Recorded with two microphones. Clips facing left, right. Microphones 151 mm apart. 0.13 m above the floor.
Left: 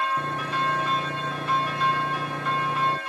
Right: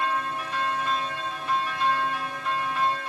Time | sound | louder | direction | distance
0.2 | sawing | left 2 dB | 65° left (ahead or behind) | ?